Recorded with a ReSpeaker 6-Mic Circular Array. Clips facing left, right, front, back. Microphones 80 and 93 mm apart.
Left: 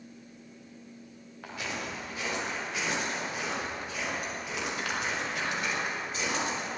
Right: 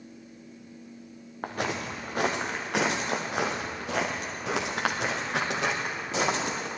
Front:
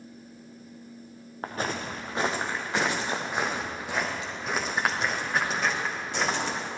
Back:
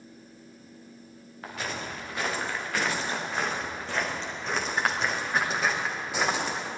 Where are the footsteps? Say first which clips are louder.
Right 6 dB, front 4 dB; 50° right, 2 m; by 6.7 s 100° right, 4 m.